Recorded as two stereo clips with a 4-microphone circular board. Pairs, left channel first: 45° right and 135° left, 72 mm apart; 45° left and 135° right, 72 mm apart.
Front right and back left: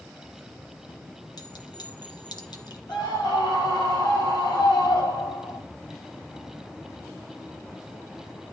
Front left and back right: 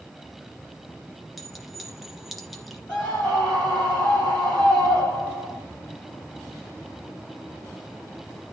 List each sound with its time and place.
1.4 s a clink: 45° right, 2 m
2.9 s a scream: 25° right, 8 m